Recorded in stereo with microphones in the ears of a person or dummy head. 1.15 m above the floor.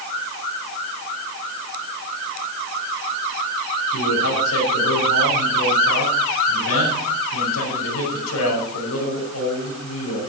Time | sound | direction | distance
3.9 | a man speaking | 85° left | 7 m